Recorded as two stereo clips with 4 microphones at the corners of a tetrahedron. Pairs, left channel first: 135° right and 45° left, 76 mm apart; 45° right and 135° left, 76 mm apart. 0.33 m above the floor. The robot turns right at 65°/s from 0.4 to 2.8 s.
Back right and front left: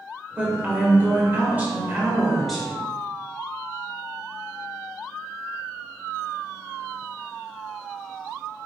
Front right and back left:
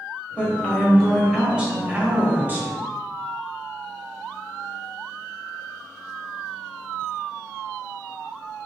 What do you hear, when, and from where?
0.4 s a woman speaking: straight ahead, 1.1 m; by 2.8 s 155° left, 1.1 m